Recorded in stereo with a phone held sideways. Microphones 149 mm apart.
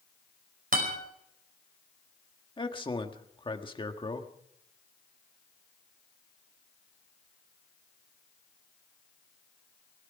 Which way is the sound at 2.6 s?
30° left (ahead or behind).